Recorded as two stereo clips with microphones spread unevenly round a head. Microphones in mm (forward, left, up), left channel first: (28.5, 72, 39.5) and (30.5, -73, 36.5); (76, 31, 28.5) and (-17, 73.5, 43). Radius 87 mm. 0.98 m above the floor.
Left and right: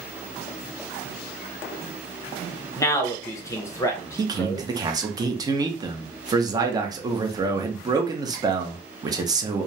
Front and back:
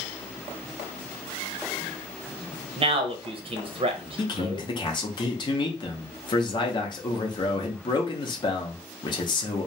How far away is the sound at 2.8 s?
About 0.7 m.